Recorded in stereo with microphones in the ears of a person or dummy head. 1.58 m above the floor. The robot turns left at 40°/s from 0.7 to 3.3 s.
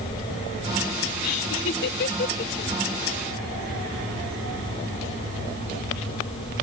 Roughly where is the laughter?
Left.